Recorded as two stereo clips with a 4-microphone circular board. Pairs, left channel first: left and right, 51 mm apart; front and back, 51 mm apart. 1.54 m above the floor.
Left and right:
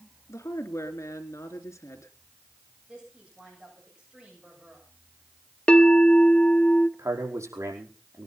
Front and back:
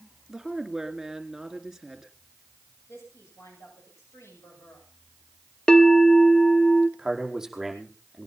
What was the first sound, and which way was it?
A woman speaking, 95° left.